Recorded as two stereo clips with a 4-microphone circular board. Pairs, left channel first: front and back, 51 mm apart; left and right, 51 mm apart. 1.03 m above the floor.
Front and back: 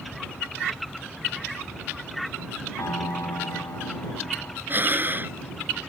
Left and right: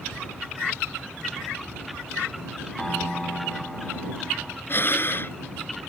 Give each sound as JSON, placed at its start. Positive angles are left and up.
{"t": 2.8, "sound": "a piano", "azimuth_deg": 10}
{"t": 4.7, "sound": "breathing", "azimuth_deg": 135}